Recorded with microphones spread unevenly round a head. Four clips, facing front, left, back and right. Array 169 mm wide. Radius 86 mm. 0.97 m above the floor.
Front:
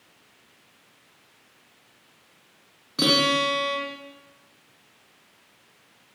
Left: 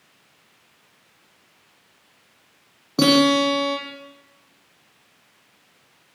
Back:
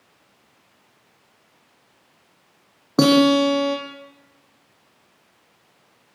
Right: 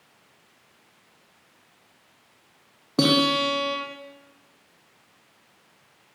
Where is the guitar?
175° right, 8 m.